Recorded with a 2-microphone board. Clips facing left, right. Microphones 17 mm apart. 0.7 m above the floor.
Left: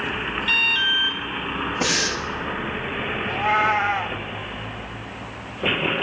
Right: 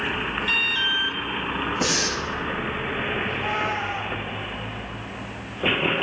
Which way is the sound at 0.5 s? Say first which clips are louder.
Left 3 dB; 10° left (ahead or behind).